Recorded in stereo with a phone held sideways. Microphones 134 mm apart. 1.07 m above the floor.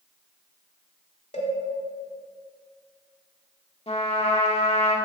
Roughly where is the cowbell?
Left.